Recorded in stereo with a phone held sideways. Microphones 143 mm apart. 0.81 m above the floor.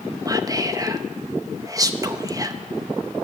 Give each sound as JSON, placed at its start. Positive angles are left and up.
{"t": 0.2, "sound": "whispering", "side_deg": -25, "distance_m": 0.5}